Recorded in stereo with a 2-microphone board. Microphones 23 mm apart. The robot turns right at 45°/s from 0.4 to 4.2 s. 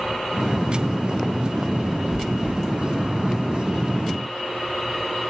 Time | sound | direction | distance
2.1 | chewing | 55° left (ahead or behind) | 5 m